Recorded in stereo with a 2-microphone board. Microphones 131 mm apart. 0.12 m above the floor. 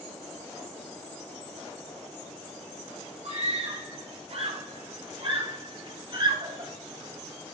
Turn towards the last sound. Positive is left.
turn(degrees=-40)  # may be behind; listen again after turning